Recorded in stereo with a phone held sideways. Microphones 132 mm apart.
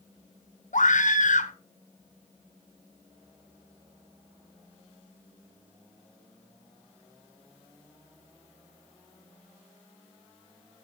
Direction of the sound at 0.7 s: 75° left (ahead or behind).